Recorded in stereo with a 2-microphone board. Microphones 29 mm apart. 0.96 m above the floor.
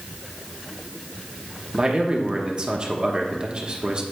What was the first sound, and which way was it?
A man speaking, 30° right (ahead or behind).